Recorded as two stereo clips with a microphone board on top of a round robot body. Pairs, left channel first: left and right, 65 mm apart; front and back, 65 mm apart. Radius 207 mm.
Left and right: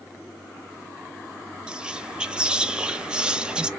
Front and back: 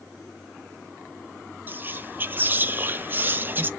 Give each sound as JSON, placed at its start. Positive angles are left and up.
{"t": 1.7, "sound": "whispering", "azimuth_deg": -155, "distance_m": 0.6}